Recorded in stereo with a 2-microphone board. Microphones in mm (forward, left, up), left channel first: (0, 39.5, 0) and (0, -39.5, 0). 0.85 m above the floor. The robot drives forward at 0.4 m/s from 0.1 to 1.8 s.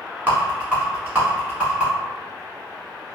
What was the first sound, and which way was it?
A rattle, 25° right (ahead or behind).